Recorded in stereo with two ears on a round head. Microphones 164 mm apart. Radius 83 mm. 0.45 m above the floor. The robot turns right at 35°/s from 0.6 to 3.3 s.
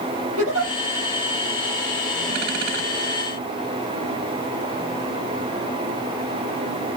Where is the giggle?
85° right, 4.5 m; by 0.7 s 80° right, 4.5 m.